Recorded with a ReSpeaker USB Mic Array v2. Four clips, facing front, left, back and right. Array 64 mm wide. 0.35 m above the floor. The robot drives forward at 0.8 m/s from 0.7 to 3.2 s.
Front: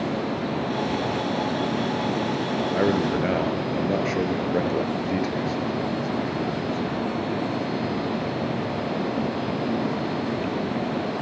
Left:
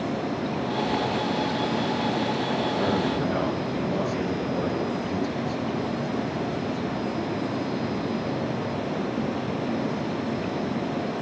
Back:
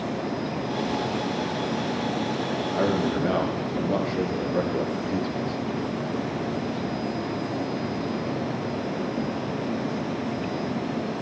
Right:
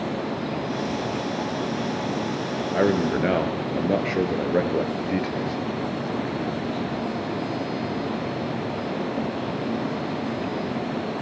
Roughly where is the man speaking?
Ahead right.